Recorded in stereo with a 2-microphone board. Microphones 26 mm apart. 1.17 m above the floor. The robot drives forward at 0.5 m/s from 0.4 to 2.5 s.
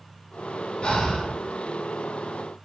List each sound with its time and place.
0.8 s breathing: 40° left (ahead or behind), 0.6 m; by 1.4 s 30° left (ahead or behind), 0.8 m